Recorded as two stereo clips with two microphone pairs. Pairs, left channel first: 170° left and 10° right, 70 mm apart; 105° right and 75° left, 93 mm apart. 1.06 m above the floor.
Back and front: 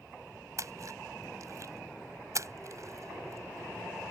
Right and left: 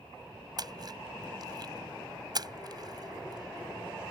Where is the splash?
30° left.